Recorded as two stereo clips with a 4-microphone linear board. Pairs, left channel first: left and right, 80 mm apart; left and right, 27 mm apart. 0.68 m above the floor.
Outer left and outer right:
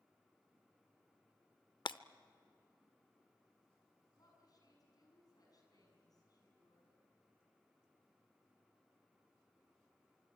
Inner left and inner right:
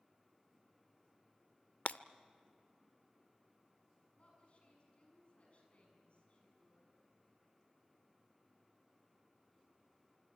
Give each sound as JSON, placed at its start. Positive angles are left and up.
{"t": 1.9, "sound": "breaking glass", "side_deg": 70, "distance_m": 0.5}
{"t": 4.2, "sound": "a woman speaking", "side_deg": 50, "distance_m": 6.5}